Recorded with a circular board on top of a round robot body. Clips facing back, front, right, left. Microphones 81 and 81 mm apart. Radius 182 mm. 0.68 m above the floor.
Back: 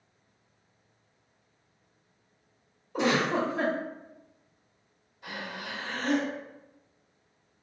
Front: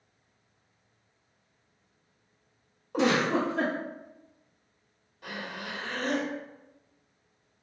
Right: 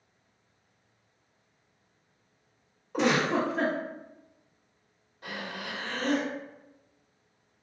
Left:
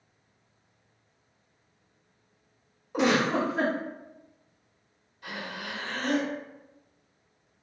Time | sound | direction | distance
2.9 | a giggle | 5° left | 1.0 m
5.2 | breathing | 35° right | 0.9 m